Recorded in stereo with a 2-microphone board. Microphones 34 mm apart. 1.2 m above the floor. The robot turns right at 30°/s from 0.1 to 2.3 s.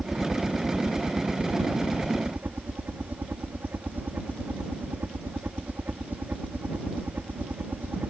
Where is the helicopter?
175° right; by 8.1 s 110° right.